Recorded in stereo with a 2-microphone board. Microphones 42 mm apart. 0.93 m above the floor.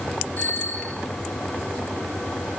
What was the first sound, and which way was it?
A bicycle bell, 40° left (ahead or behind).